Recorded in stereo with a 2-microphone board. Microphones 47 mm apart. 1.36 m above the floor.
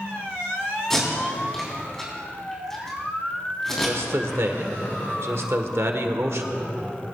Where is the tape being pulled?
10° left (ahead or behind), 3.5 m.